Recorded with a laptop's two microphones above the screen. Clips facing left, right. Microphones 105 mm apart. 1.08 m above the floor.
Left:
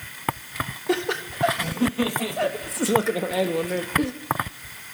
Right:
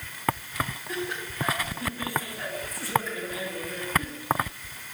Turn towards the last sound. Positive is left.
turn(degrees=75)  # may be behind; listen again after turning